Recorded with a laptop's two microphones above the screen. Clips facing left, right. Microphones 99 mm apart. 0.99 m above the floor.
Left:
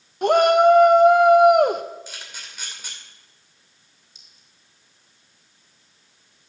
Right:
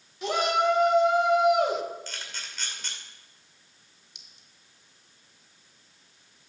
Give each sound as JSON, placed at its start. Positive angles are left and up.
{"t": 0.2, "sound": "a shout", "side_deg": 55, "distance_m": 0.6}
{"t": 2.1, "sound": "a camera shutter", "side_deg": 10, "distance_m": 2.5}
{"t": 4.2, "sound": "a clink", "side_deg": -75, "distance_m": 0.9}